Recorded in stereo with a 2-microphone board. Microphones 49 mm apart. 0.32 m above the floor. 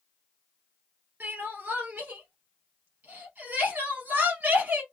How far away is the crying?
About 1.9 m.